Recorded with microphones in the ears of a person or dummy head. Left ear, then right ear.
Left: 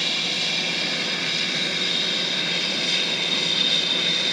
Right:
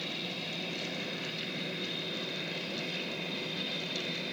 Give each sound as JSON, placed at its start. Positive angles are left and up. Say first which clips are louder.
{"t": 0.0, "sound": "an aircraft", "louder": "left 14 dB", "side_deg": 60}